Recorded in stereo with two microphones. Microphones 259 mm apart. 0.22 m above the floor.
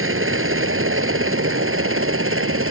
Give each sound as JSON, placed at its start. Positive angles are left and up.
{"t": 0.0, "sound": "a helicopter", "side_deg": -55}